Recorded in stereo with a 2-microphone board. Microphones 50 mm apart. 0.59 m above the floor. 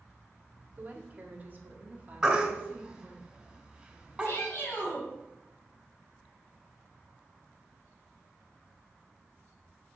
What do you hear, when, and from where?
0.8 s a woman speaking: 35° right (ahead or behind), 1.5 m; by 3.2 s 30° right (ahead or behind), 1.8 m
2.2 s a baby crying: 15° right (ahead or behind), 1.7 m
4.2 s a shout: 50° left (ahead or behind), 1.7 m